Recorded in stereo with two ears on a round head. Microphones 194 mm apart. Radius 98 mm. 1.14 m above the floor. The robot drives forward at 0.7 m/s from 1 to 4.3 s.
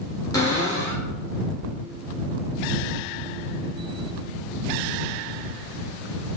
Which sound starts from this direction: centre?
A cupboard door, at 0.3 s.